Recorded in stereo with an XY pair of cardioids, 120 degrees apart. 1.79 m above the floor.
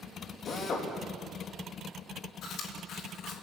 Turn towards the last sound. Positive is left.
turn(degrees=65)